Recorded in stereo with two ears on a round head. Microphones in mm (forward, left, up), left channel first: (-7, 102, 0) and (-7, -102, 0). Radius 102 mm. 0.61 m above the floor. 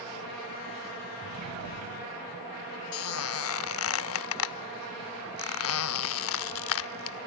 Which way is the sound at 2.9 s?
65° left (ahead or behind).